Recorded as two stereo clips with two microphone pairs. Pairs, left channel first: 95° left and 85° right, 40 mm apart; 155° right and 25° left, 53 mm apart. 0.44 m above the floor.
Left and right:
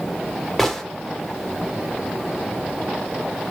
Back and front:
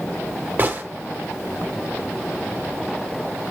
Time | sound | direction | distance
0.6 | a gunshot | 20° left | 0.8 m